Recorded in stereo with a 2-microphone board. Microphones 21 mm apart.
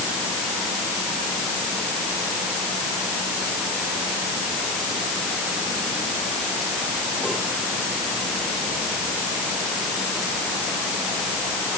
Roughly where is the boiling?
No boiling in this recording.